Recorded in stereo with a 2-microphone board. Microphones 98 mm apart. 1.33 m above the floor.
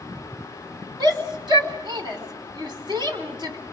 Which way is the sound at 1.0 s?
50° right (ahead or behind).